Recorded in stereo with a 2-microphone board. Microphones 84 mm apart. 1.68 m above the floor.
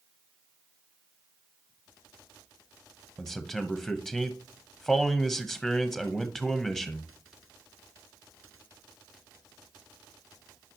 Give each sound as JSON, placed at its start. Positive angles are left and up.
{"t": 3.2, "sound": "a man speaking", "side_deg": 5, "distance_m": 0.8}